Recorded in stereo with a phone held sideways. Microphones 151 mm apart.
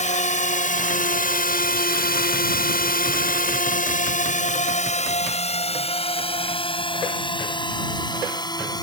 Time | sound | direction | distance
0.0 | a drone | 50° left (ahead or behind) | ?